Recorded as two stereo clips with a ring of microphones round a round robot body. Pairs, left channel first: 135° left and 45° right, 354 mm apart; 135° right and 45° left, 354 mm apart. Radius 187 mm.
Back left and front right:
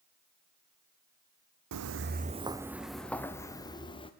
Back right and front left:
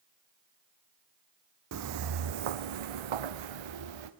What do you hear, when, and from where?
1.7 s footsteps: 5° right, 0.9 m; by 4.1 s 60° left, 2.5 m